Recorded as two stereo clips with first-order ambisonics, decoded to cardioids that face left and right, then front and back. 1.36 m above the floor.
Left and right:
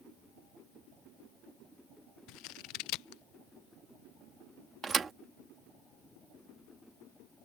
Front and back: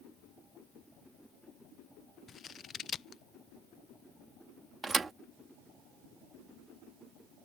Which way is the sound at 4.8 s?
125° right.